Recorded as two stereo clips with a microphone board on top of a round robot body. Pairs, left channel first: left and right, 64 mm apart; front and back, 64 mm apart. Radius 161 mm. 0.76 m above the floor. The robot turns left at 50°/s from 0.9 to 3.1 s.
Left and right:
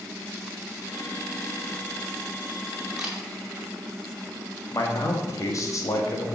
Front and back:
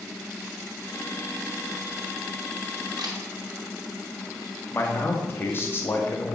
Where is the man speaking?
55° left, 1.6 m.